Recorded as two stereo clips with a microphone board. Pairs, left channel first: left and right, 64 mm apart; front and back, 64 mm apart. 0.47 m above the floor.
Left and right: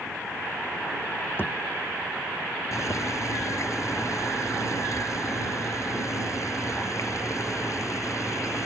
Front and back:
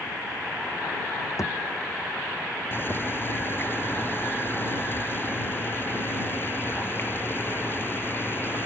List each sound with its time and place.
1.4 s a thud: 35° left
2.7 s boiling: 55° left